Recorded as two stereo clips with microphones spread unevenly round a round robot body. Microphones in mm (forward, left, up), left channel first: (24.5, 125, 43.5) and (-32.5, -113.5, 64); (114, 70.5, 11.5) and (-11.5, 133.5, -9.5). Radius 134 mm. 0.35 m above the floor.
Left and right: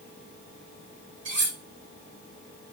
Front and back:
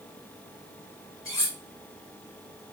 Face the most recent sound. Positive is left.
turn(degrees=-70)